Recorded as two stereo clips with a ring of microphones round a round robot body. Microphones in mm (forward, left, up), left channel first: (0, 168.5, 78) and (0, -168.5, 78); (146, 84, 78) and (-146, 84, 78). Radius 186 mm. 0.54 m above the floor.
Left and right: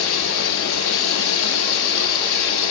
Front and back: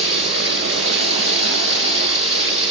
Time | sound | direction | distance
0.0 | running water | 110° left | 5.5 m